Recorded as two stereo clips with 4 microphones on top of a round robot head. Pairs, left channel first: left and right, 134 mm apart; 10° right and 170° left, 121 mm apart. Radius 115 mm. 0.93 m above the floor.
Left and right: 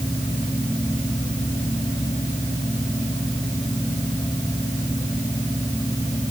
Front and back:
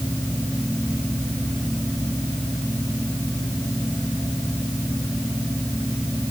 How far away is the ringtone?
I don't hear a ringtone.